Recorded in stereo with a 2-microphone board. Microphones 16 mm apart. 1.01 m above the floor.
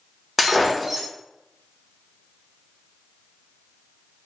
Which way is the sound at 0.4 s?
15° right (ahead or behind).